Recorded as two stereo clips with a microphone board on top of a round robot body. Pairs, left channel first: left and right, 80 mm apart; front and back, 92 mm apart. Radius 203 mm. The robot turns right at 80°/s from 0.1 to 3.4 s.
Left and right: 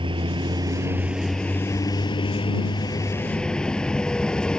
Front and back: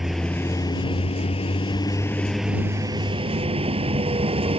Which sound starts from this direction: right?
A vehicle, at 0.0 s.